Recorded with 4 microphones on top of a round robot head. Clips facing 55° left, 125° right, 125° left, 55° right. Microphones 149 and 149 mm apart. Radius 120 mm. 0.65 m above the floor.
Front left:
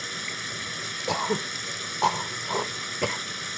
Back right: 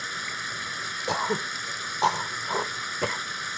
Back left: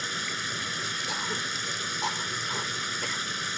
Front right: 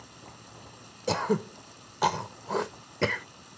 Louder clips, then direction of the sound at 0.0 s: Even, back left 11 dB; 130° left.